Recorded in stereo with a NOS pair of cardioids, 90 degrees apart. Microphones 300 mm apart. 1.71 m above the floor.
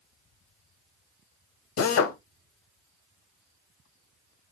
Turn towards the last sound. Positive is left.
turn(degrees=60)